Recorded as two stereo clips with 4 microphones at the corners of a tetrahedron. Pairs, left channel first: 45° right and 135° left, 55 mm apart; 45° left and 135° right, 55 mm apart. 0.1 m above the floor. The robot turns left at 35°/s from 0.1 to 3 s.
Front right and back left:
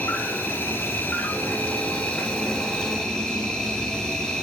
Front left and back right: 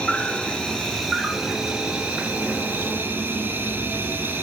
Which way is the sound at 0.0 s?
10° right.